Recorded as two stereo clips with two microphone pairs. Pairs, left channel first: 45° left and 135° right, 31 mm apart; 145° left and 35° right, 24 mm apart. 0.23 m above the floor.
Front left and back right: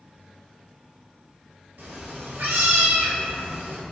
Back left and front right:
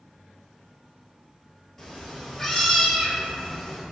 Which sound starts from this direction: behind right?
A cat meowing, at 1.8 s.